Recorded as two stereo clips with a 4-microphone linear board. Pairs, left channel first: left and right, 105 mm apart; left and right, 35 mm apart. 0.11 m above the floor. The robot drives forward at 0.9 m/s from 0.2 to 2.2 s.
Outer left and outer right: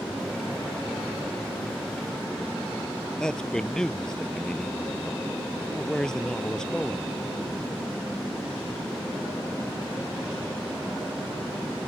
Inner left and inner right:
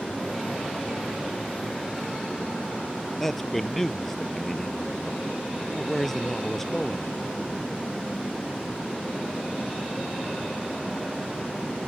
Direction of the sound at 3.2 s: 5° left (ahead or behind).